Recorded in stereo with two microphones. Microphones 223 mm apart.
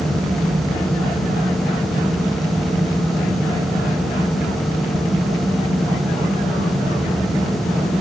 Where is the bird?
I don't hear a bird.